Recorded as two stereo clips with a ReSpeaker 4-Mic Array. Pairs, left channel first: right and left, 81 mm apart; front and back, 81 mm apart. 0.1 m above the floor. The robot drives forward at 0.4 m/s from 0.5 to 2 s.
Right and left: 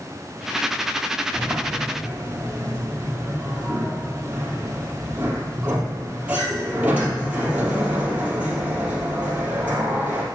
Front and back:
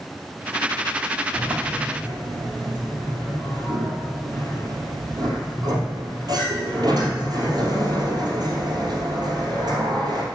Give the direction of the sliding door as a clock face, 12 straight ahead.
7 o'clock.